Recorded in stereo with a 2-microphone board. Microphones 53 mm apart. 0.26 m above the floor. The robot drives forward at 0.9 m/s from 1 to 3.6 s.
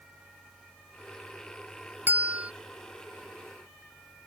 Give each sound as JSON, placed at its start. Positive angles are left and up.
{"t": 2.1, "sound": "a bell", "side_deg": -35}